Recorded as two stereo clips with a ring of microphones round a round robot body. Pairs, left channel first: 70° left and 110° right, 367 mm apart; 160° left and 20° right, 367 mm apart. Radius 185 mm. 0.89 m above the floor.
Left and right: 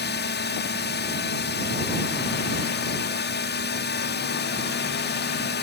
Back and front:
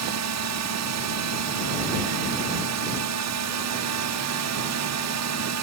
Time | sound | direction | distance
0.0 | a drone | 10° left | ?